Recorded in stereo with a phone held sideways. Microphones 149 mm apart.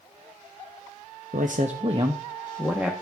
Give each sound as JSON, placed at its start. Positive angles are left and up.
{"t": 1.3, "sound": "a man speaking", "side_deg": -65, "distance_m": 0.8}